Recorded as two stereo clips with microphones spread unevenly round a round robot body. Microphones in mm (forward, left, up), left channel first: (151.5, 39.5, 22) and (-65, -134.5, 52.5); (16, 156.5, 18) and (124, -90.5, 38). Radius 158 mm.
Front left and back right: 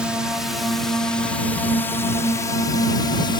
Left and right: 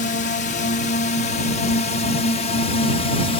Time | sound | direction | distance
0.0 | a drone | 125° left | ?